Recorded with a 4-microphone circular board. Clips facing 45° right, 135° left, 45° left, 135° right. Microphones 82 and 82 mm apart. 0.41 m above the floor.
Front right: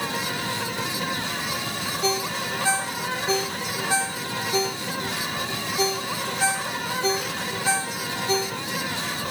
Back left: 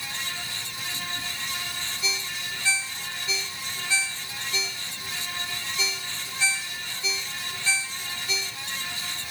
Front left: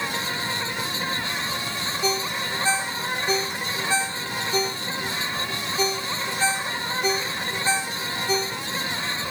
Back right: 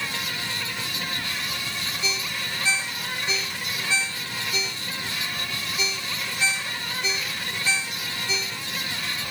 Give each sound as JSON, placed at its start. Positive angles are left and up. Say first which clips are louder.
{"t": 0.0, "sound": "an insect", "louder": "front right 8 dB, front left 4 dB", "azimuth_deg": -20}
{"t": 2.0, "sound": "a ringtone", "louder": "front right 10 dB, front left 7 dB", "azimuth_deg": -5}